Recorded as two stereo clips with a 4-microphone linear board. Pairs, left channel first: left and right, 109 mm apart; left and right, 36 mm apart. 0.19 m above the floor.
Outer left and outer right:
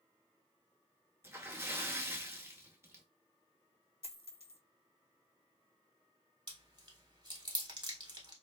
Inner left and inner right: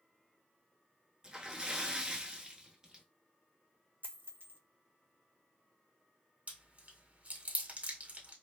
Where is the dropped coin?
70° right (ahead or behind), 0.6 m.